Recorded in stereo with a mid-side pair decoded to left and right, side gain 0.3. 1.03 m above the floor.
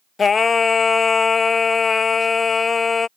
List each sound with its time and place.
0.2 s singing: 55° left